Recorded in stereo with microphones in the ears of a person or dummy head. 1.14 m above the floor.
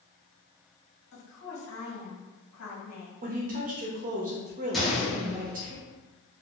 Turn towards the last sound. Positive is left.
turn(degrees=0)  # may be behind; listen again after turning